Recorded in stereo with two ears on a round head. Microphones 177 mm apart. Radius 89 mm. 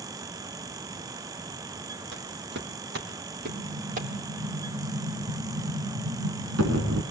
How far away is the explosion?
About 4.5 m.